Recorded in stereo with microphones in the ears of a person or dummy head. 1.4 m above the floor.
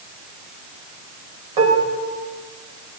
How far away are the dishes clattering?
About 4.5 m.